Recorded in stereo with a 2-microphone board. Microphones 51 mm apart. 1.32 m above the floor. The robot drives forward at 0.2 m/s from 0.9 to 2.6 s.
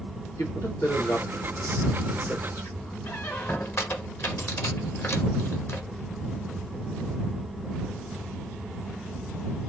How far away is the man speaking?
About 2.0 m.